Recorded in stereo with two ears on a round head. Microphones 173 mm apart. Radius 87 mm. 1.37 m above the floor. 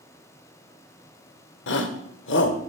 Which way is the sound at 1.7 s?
70° left (ahead or behind).